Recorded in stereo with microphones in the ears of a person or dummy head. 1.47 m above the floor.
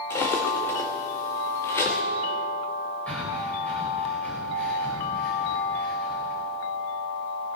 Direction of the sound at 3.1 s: 15° left (ahead or behind).